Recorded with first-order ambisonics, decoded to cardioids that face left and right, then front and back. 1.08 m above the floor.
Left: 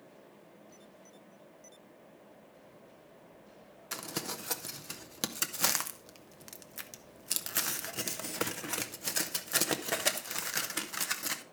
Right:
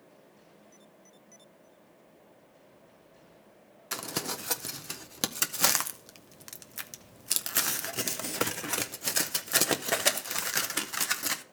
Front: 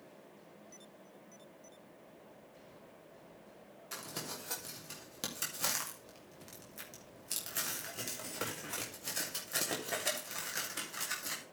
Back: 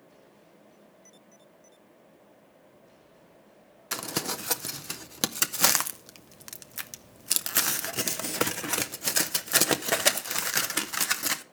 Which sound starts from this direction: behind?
Crumpling, at 3.9 s.